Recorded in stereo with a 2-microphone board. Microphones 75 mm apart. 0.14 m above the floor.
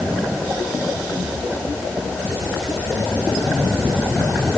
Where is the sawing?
I don't hear sawing.